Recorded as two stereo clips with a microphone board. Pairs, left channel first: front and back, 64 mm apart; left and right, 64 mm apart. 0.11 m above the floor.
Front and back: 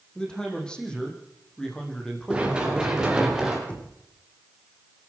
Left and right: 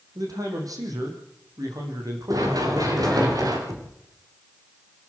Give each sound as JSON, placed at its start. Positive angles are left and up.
{"t": 0.1, "sound": "a man speaking", "azimuth_deg": -75, "distance_m": 5.0}
{"t": 2.3, "sound": "running footsteps", "azimuth_deg": -105, "distance_m": 6.5}
{"t": 3.7, "sound": "knocking", "azimuth_deg": -65, "distance_m": 4.5}